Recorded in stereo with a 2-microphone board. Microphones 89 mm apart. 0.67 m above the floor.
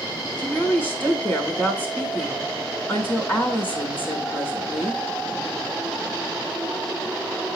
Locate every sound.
0.4 s a woman speaking: 20° left (ahead or behind), 3 m